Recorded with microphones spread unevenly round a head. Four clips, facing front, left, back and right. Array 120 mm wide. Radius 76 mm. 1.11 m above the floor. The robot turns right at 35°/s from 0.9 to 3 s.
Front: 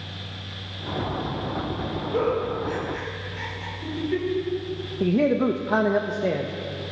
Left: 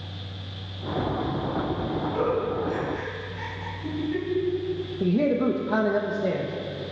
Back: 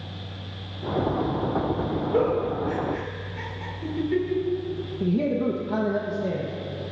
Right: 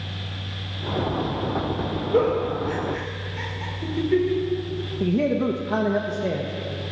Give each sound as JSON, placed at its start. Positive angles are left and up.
{"t": 2.1, "sound": "a giggle", "azimuth_deg": -115, "distance_m": 4.5}
{"t": 5.0, "sound": "a man speaking", "azimuth_deg": 0, "distance_m": 0.9}